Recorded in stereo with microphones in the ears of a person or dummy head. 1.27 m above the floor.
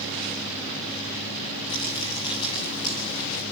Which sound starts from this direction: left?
Crumpling, at 1.7 s.